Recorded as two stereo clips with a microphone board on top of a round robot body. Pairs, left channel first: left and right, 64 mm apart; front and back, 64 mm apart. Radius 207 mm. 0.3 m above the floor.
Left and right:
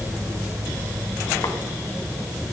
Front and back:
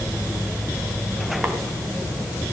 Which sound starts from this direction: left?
Tapping, at 1.4 s.